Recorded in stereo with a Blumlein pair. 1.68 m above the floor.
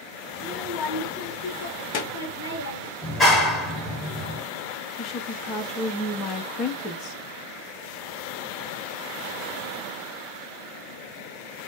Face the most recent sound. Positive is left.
turn(degrees=30)